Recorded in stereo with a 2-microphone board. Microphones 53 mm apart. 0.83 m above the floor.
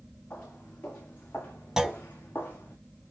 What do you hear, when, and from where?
0.3 s footsteps: 25° left (ahead or behind), 5 m; by 2.8 s 30° left (ahead or behind), 3.5 m
1.8 s a clunk: 10° right (ahead or behind), 0.6 m